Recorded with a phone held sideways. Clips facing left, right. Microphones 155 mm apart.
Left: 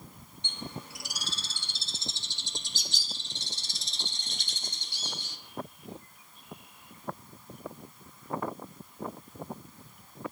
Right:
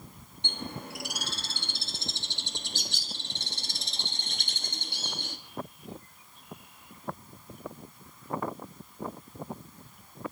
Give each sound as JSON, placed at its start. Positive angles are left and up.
{"t": 0.4, "sound": "a bird", "side_deg": -70, "distance_m": 1.4}